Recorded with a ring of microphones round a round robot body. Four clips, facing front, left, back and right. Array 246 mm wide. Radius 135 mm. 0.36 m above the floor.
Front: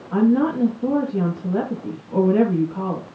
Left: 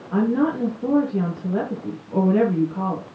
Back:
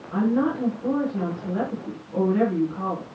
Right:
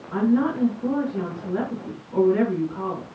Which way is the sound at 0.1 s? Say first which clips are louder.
Left 1 dB, front 5 dB; 40° left.